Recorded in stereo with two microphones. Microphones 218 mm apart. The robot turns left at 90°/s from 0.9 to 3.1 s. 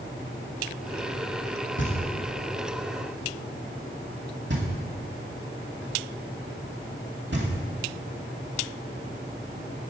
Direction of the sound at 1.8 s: 60° left (ahead or behind).